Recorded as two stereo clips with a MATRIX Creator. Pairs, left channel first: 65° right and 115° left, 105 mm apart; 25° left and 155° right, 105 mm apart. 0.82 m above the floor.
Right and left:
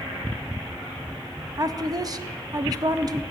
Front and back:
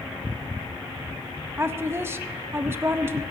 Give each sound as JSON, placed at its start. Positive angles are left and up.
{"t": 1.6, "sound": "a woman speaking", "azimuth_deg": 145, "distance_m": 0.5}